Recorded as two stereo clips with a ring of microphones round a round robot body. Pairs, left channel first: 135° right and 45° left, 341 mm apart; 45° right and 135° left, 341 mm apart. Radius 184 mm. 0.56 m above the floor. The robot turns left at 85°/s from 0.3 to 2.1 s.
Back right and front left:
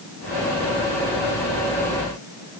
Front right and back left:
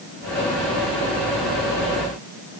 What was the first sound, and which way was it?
Only background noise.